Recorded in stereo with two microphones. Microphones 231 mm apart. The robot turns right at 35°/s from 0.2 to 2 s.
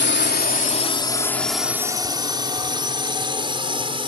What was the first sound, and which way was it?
A drone, 50° left (ahead or behind).